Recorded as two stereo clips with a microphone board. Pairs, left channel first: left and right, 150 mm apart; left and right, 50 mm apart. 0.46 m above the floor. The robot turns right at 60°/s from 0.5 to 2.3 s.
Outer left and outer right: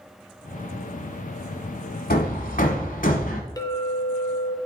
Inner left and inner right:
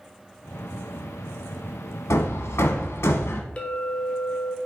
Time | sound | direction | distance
2.1 | hammering | 75° left (ahead or behind) | 1.1 m
3.6 | a clink | 25° left (ahead or behind) | 0.8 m